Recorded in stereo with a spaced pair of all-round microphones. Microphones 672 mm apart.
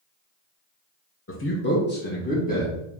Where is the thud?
I don't hear a thud.